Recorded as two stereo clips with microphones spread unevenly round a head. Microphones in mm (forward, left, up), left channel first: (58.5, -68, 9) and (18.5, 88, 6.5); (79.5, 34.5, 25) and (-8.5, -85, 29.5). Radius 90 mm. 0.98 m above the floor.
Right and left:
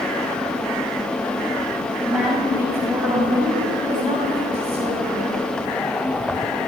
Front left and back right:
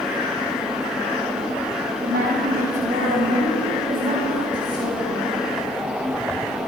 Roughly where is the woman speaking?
Behind.